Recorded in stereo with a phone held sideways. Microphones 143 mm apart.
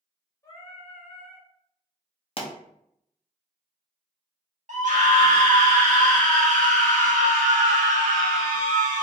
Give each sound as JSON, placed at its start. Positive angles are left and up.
{"t": 0.4, "sound": "singing", "side_deg": 25, "distance_m": 1.1}
{"t": 2.4, "sound": "a pop", "side_deg": 45, "distance_m": 0.7}
{"t": 4.7, "sound": "a scream", "side_deg": -60, "distance_m": 1.3}